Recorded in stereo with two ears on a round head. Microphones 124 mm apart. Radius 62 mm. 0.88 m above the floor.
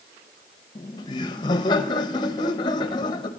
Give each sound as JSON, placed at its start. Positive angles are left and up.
{"t": 0.8, "sound": "laughter", "side_deg": 35, "distance_m": 0.8}